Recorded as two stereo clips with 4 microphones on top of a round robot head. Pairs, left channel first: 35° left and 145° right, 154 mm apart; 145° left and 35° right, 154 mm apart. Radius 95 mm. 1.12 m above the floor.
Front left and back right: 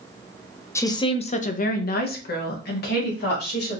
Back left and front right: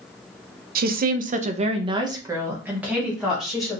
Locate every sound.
0.8 s a woman speaking: 40° right, 0.6 m; by 3.8 s 55° left, 1.5 m